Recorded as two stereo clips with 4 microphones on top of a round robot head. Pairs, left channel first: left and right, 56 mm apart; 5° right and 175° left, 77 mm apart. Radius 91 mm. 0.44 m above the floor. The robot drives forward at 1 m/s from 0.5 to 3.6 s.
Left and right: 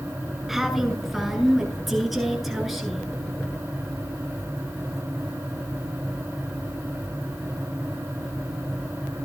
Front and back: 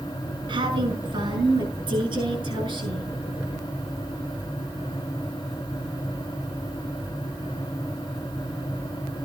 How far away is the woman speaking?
About 5 m.